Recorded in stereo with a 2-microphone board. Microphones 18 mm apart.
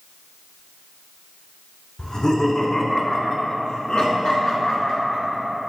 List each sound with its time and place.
2.0 s laughter: 35° left (ahead or behind), 2 m; by 5.4 s 60° left (ahead or behind), 4 m